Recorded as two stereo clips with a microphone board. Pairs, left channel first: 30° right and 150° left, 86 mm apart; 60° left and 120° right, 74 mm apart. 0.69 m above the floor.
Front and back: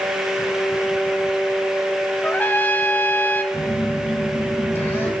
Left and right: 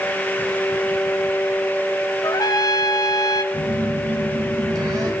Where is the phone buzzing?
90° right, 3 m.